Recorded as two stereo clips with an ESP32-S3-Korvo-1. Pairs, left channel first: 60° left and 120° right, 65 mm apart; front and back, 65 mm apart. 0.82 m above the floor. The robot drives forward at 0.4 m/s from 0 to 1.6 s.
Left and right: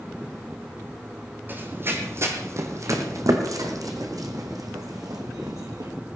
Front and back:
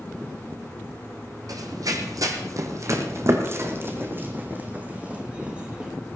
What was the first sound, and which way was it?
Running footsteps, 175° right.